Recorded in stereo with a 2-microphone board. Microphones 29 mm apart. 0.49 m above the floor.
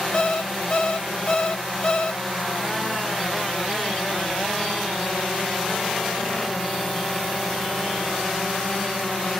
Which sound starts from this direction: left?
An alarm clock, at 0.1 s.